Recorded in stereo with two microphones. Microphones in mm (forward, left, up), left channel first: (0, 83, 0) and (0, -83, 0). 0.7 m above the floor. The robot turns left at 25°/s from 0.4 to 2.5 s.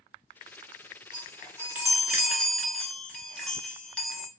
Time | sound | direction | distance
1.1 | a chime | 155° right | 0.7 m